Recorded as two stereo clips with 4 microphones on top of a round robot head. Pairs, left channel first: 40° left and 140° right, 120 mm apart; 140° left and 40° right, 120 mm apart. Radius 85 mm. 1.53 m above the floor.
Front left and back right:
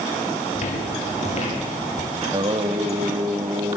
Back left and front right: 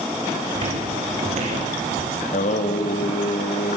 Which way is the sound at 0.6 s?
5° left.